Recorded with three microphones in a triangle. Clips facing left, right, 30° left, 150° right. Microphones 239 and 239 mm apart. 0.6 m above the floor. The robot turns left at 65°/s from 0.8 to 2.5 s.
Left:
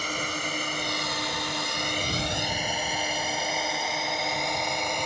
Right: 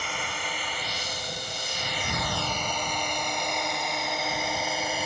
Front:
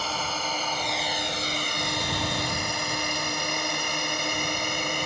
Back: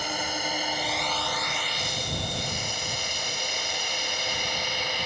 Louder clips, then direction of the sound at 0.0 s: Left 4 dB, back 1 dB; 135° left.